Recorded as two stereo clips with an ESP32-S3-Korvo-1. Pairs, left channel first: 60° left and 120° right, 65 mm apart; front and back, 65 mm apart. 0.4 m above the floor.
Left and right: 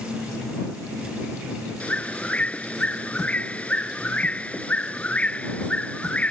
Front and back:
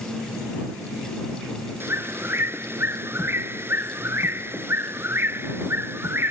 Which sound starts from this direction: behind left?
A bird, at 1.8 s.